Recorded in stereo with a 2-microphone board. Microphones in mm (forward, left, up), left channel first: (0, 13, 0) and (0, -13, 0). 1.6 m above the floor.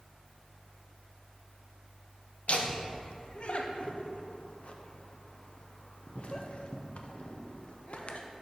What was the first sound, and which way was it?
Laughter, 50° left (ahead or behind).